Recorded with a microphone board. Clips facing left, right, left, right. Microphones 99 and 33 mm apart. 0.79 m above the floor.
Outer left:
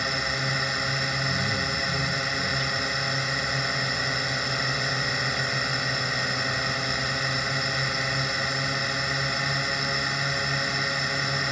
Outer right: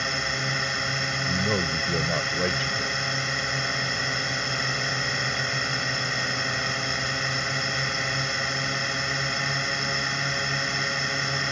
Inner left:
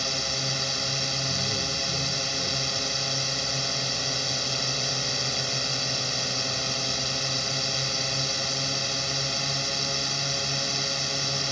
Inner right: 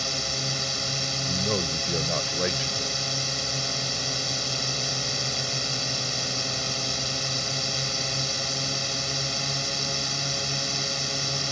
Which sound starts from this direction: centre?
A drone, at 0.0 s.